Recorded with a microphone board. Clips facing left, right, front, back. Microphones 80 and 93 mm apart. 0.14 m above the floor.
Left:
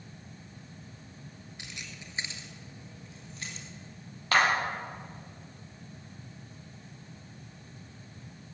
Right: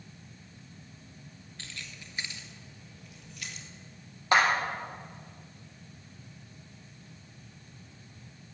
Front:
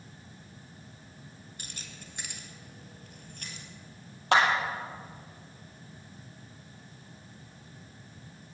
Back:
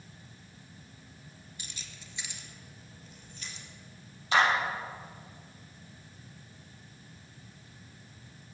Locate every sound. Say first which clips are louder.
1.6 s keys jangling: even, front 3 dB; 20° left, 1.4 m; by 3.7 s 35° left, 2.5 m
4.3 s a clap: right 1 dB, front 2 dB; 20° right, 4 m